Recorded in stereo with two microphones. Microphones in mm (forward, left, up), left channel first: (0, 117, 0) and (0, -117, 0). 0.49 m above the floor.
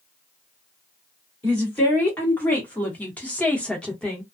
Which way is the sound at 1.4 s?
5° left (ahead or behind).